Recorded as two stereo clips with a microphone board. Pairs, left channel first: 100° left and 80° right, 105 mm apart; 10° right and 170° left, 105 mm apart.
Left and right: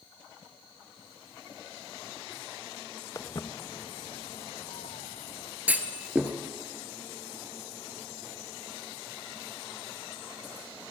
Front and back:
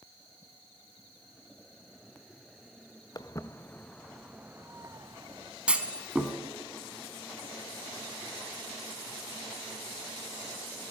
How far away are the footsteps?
About 0.8 m.